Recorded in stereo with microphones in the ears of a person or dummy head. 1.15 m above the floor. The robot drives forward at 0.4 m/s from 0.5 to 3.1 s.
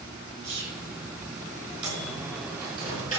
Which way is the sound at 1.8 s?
30° right (ahead or behind).